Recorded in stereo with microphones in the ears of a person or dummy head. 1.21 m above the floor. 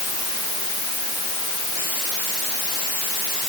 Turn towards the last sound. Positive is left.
No sound to turn to.